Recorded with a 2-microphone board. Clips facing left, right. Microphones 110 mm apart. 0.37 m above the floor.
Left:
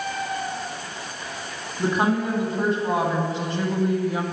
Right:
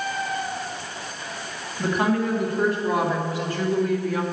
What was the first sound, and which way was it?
A woman speaking, 25° left (ahead or behind).